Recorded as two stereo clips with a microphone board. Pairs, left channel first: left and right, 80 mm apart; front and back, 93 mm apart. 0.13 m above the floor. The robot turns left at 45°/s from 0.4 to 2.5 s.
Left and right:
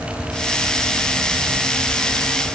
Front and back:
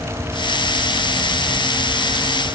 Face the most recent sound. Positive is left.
No sound to turn to.